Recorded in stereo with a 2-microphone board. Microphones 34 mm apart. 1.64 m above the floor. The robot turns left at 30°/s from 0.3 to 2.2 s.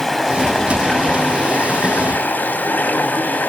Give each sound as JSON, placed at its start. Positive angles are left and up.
{"t": 0.0, "sound": "running water", "azimuth_deg": 175, "distance_m": 3.0}